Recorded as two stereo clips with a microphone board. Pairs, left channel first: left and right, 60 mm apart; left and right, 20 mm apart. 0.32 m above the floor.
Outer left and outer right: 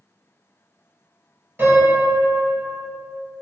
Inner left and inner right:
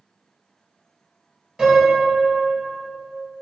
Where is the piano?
35° right (ahead or behind), 1.8 m.